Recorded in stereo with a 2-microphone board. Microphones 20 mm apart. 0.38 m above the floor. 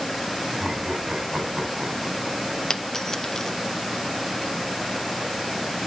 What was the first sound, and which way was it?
Laughter, 35° right (ahead or behind).